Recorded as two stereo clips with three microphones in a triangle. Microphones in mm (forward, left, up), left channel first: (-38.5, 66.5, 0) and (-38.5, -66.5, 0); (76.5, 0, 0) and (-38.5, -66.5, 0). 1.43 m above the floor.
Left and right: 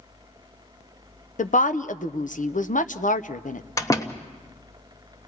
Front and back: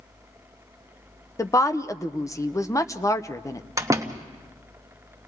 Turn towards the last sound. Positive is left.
turn(degrees=150)